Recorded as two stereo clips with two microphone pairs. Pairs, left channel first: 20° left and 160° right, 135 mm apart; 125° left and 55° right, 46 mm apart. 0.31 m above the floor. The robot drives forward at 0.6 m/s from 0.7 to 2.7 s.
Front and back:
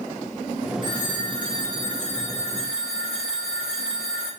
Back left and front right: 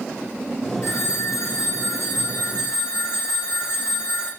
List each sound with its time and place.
0.8 s a phone ringing: 140° left, 3 m; by 4.3 s 150° left, 4 m